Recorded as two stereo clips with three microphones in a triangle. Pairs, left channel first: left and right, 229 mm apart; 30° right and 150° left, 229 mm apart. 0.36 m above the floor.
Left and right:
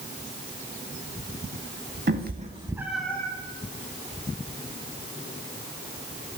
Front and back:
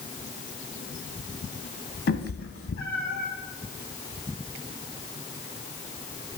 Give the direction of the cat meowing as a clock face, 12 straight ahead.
2 o'clock.